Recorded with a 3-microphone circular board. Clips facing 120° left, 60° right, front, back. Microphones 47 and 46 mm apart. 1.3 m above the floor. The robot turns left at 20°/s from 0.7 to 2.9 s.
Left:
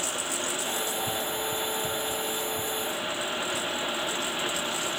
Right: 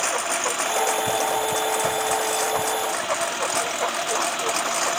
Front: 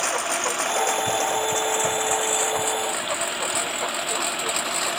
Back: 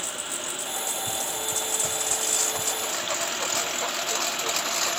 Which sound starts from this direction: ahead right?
A lawn mower, at 0.0 s.